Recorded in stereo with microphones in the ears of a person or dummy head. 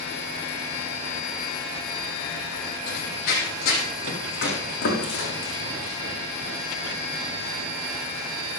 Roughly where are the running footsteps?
Left.